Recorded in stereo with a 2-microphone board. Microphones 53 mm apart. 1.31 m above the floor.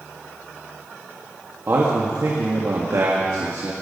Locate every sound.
1.7 s a man speaking: 55° right (ahead or behind), 1.7 m; by 3.7 s 85° right, 2.0 m